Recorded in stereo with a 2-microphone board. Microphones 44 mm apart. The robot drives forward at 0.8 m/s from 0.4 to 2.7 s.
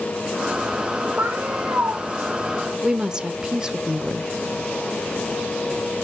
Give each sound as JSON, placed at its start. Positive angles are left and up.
{"t": 1.2, "sound": "a cat meowing", "side_deg": -60, "distance_m": 1.7}
{"t": 2.8, "sound": "a woman speaking", "side_deg": -15, "distance_m": 0.8}